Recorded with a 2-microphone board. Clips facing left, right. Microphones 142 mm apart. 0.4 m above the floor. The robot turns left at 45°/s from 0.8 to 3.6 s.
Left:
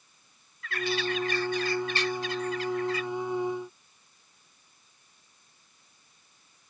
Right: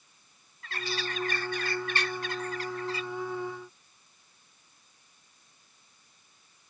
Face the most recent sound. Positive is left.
turn(degrees=-170)